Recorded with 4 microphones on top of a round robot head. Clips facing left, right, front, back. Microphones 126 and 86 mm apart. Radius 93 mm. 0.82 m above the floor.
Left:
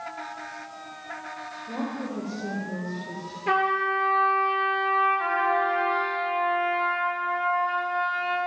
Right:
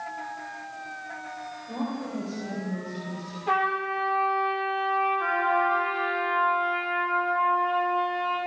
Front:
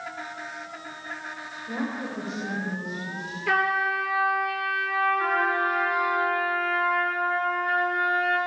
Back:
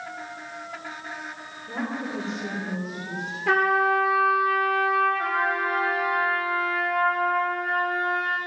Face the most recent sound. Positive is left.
turn(degrees=95)